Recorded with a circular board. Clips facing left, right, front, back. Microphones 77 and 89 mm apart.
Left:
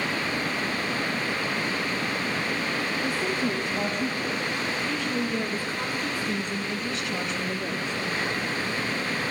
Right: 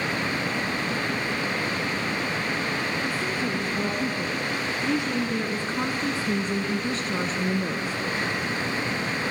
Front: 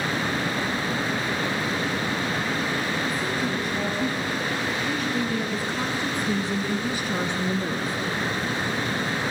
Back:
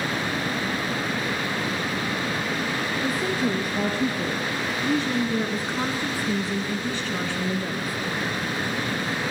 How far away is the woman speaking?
About 2.5 m.